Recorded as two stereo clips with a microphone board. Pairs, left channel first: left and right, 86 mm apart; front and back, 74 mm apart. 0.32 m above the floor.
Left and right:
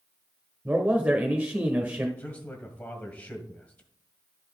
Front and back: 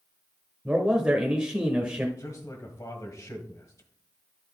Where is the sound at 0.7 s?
125° right, 1.0 m.